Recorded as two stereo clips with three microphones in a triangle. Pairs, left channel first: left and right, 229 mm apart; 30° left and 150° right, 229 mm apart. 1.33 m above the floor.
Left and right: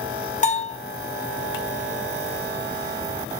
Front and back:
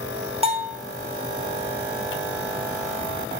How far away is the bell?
About 0.6 m.